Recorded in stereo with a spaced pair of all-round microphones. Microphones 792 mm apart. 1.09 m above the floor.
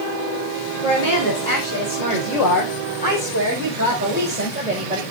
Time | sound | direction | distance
0.8 | a woman speaking | 45° right (ahead or behind) | 3.5 m